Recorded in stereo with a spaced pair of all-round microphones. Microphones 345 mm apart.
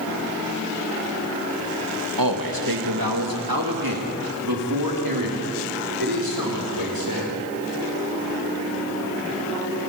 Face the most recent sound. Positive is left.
turn(degrees=-85)